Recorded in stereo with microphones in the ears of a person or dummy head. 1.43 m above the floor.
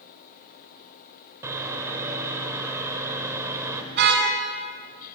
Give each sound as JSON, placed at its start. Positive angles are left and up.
{"t": 1.4, "sound": "sawing", "side_deg": -15, "distance_m": 2.5}
{"t": 3.9, "sound": "a car horn", "side_deg": -65, "distance_m": 5.0}